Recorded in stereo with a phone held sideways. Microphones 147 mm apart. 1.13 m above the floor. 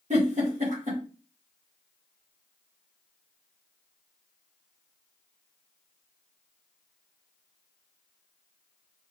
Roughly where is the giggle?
Right.